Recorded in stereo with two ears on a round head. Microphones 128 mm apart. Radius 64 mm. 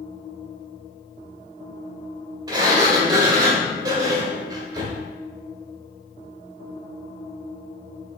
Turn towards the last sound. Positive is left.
turn(degrees=-30)  # may be behind; listen again after turning